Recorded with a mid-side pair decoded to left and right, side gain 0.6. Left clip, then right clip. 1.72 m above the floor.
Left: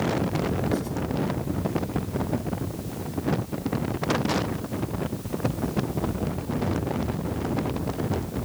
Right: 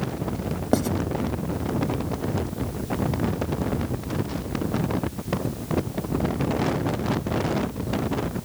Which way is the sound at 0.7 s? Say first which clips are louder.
Right 6 dB; 50° right.